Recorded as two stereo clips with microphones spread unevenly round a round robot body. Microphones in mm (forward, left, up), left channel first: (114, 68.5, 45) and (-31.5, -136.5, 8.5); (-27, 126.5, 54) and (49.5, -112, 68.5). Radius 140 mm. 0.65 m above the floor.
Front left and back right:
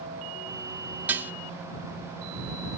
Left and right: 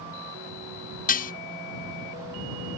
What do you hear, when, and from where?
1.1 s dishes clattering: 155° left